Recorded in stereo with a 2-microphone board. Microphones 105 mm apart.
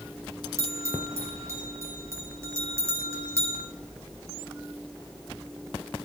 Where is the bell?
25° right (ahead or behind), 2.5 m.